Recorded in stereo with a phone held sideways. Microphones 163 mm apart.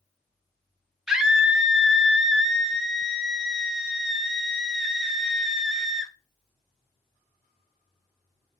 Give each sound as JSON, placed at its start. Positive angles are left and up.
{"t": 1.1, "sound": "a scream", "side_deg": -5, "distance_m": 0.5}